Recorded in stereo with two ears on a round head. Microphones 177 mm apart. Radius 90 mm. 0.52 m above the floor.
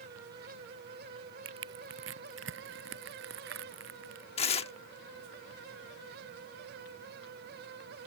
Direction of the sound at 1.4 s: 65° right (ahead or behind).